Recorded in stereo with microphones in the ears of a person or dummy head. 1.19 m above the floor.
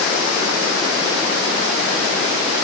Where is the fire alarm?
No fire alarm in this recording.